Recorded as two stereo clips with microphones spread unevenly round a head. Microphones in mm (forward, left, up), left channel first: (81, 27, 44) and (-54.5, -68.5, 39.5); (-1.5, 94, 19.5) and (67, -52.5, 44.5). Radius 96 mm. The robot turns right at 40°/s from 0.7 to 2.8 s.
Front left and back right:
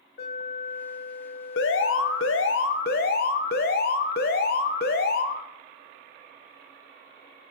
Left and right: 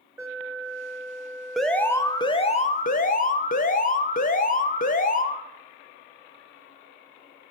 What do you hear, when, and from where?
0.2 s an alarm: 10° left, 3 m; by 2.6 s 80° left, 3 m
1.6 s an alarm: 25° left, 0.9 m; by 5.5 s 75° left, 0.9 m